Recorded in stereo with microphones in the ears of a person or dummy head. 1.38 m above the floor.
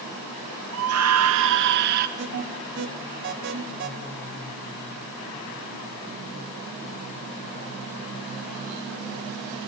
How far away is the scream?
About 0.9 m.